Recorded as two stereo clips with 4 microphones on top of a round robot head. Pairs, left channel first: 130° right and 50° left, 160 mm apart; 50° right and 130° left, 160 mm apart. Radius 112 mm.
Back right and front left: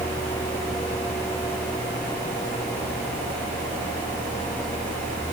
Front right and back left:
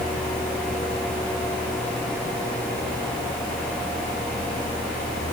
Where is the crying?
I don't hear crying.